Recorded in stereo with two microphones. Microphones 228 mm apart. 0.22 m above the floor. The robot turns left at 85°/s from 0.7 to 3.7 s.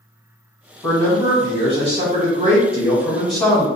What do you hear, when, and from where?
0.8 s a man speaking: 30° left, 1.1 m; by 3.6 s 150° left, 1.1 m